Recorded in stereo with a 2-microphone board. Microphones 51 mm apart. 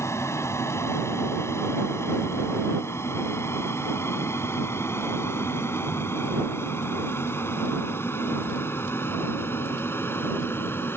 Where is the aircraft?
65° left (ahead or behind); by 11.0 s 50° left (ahead or behind).